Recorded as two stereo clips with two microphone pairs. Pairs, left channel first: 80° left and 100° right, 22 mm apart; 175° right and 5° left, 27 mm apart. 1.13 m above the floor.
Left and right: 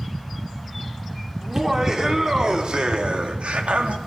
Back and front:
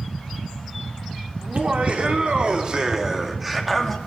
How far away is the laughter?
About 4 m.